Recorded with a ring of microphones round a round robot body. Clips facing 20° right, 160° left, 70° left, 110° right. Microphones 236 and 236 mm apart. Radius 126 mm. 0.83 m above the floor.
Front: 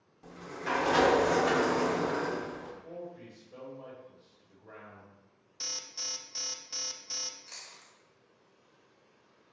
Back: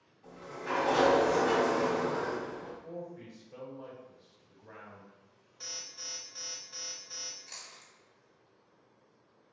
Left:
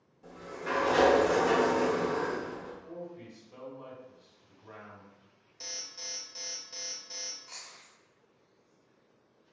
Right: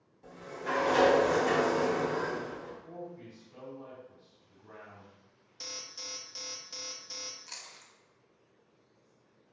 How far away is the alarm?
About 0.5 m.